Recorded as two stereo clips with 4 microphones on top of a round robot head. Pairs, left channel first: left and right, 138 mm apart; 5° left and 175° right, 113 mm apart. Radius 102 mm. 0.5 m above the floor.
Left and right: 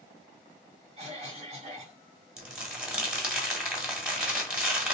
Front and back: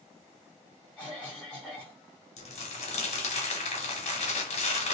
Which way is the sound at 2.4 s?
5° right.